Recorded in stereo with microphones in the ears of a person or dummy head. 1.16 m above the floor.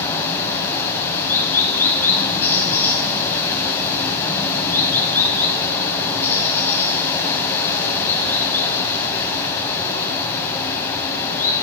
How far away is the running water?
About 5 m.